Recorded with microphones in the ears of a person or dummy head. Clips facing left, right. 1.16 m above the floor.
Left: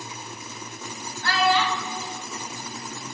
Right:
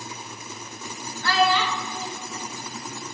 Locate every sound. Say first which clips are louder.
1.2 s a child speaking: even; 75° right (ahead or behind), 1.5 m